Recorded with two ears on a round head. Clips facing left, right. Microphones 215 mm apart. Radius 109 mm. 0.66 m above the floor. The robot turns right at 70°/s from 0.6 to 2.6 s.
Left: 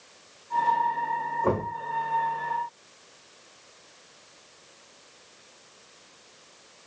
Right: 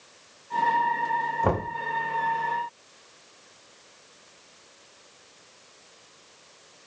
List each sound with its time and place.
1.4 s knocking: 55° right (ahead or behind), 1.3 m; by 1.7 s 70° right (ahead or behind), 1.3 m